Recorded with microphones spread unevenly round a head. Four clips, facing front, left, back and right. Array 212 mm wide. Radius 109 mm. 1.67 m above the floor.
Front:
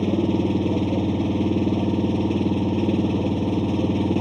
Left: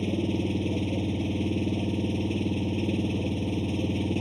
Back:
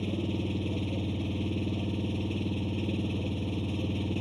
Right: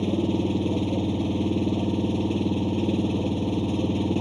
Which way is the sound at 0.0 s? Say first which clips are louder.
Right 4 dB, front 12 dB; 20° right.